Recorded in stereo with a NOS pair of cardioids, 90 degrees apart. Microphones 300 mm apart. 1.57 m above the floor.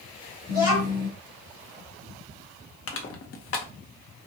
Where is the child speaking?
50° left, 1.3 m.